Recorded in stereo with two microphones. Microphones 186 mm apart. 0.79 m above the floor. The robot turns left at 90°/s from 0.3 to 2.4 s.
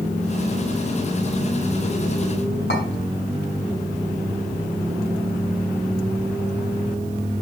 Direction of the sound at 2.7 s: 65° left (ahead or behind).